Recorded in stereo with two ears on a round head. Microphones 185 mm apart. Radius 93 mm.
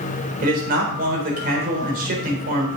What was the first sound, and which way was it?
A man speaking, 45° right (ahead or behind).